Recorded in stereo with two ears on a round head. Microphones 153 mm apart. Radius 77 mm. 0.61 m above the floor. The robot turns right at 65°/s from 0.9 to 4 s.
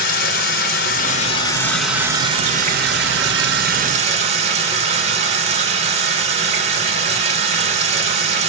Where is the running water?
120° left, 3 m; by 8.5 s 35° right, 3 m.